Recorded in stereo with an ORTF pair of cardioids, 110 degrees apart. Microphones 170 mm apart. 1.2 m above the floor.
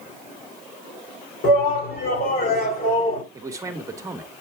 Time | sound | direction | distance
1.4 | a shout | 65° left | 4 m
3.3 | a man speaking | 15° right | 1.5 m